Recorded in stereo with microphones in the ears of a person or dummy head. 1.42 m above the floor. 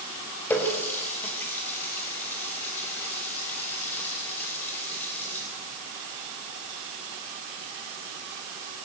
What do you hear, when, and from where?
0.5 s a running tap: 15° left (ahead or behind), 4.5 m